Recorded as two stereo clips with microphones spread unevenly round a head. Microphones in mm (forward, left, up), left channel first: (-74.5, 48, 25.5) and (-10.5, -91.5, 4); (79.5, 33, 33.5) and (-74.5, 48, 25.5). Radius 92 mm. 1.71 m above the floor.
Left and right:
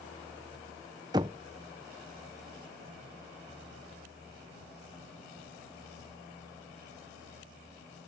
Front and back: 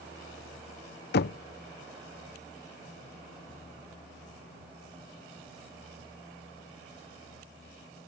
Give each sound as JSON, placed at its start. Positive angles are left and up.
{"t": 1.1, "sound": "knocking", "azimuth_deg": 5}